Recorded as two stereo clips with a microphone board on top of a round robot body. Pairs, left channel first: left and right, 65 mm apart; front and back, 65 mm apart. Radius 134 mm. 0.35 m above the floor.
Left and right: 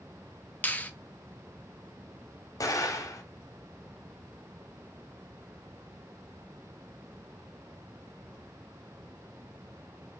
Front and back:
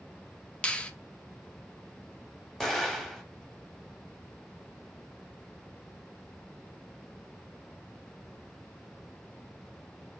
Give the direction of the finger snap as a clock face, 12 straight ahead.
10 o'clock.